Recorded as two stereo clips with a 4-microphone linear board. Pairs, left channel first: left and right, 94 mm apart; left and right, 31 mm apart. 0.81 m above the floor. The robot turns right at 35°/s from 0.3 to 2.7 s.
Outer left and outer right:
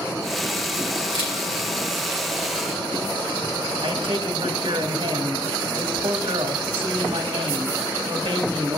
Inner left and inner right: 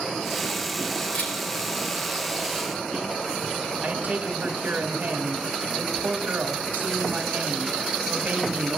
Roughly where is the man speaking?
Right.